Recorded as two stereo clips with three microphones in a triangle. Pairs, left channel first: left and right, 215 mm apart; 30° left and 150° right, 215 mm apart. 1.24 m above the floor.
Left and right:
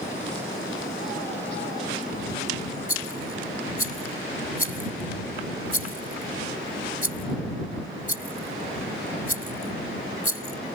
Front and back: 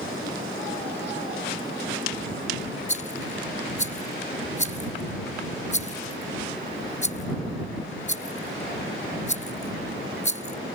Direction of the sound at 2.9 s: 85° left.